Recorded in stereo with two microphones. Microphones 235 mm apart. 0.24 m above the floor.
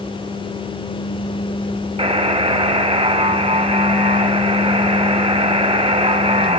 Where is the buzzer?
25° right (ahead or behind), 0.6 m.